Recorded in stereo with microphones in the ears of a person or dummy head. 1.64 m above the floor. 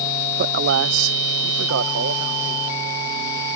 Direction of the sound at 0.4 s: 60° right (ahead or behind).